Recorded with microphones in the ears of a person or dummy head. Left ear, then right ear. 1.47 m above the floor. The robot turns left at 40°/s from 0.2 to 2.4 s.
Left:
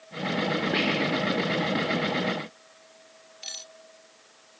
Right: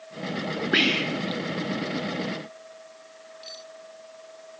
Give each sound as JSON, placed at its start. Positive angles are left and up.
{"t": 0.7, "sound": "whispering", "side_deg": -35}
{"t": 3.4, "sound": "cutlery clinking", "side_deg": 50}